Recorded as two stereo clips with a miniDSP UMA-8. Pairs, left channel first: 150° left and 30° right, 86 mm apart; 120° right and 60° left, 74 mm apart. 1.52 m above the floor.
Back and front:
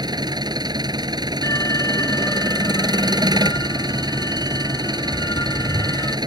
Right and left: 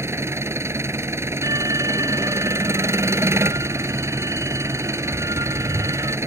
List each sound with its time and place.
0.0 s an engine running: 5° left
1.4 s an alarm: 100° left